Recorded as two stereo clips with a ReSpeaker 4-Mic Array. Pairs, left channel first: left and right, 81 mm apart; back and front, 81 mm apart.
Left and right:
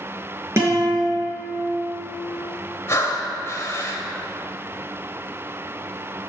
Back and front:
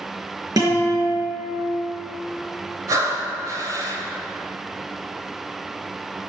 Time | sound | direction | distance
0.6 | a guitar | 35° right | 5 m
2.9 | breathing | 35° left | 1.9 m